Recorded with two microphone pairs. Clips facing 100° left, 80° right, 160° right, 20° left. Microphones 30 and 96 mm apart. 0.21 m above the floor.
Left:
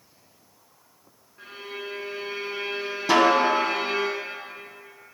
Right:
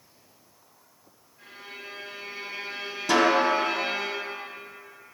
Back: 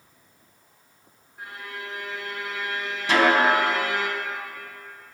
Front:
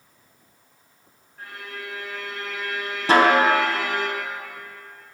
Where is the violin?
125° left, 1.2 m.